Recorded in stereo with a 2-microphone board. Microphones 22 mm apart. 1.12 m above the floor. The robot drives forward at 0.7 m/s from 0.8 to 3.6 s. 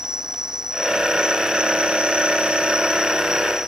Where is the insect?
30° right (ahead or behind), 1.3 m.